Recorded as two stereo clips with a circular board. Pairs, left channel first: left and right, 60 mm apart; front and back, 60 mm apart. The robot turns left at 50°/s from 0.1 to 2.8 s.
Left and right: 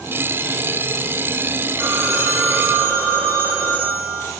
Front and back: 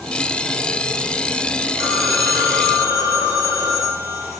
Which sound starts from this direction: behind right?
A phone ringing, at 1.8 s.